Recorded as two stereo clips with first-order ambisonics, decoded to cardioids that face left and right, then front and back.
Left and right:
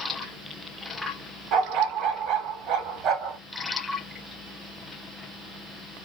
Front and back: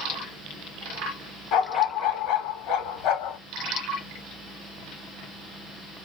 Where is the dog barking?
40° right, 1.1 m.